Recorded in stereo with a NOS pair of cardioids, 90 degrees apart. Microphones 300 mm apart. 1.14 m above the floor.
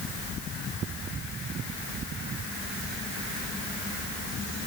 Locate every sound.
Only background noise.